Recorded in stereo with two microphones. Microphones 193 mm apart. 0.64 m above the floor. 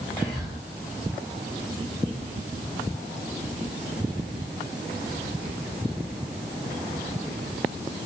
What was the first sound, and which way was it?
Whispering, 20° left (ahead or behind).